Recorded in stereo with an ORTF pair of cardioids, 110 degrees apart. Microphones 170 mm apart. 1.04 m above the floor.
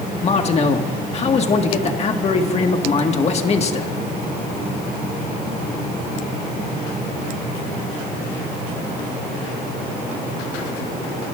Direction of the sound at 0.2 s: 40° left.